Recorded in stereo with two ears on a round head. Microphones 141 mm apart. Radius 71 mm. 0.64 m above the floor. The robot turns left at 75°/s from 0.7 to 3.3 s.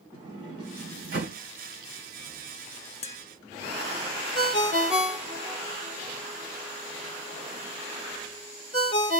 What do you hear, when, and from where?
0.1 s a sliding door: 30° right, 2 m; by 1.4 s 80° right, 2 m
3.0 s tapping: 40° left (ahead or behind), 0.5 m
4.3 s a ringtone: 45° left (ahead or behind), 1.2 m